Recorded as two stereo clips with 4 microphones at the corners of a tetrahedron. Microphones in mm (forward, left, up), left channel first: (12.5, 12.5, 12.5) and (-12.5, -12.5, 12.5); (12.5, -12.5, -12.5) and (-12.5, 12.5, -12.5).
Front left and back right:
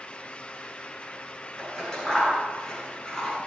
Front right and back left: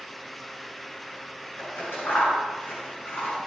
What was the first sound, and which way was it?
Scissors, 30° right.